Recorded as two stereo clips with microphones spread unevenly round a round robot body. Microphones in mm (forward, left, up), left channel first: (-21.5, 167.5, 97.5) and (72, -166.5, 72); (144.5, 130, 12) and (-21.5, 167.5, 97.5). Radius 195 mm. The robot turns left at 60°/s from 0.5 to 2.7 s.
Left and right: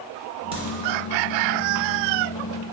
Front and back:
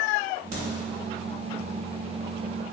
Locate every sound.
0.5 s a crack: 125° right, 0.9 m; by 0.6 s 135° right, 0.9 m